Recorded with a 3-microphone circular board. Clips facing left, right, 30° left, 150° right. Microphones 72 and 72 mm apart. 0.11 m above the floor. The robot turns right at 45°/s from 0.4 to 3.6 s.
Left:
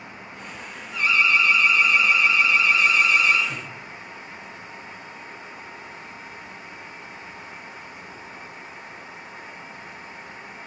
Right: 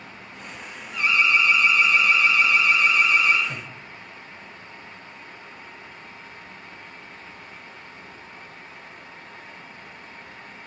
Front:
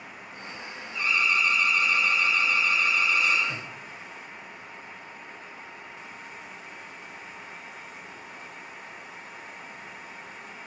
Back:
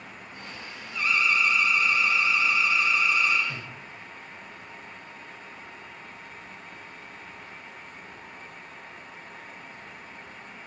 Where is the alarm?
40° right, 3.5 m; by 3.4 s 70° left, 3.5 m.